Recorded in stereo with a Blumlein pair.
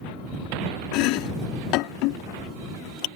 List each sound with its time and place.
0.9 s chopping: 40° left